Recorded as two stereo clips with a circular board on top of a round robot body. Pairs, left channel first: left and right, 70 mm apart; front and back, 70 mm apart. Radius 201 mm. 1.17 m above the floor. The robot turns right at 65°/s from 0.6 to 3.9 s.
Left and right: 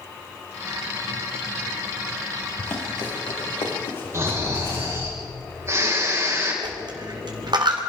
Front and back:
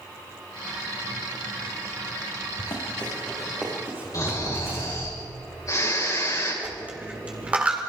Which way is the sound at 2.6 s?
30° left.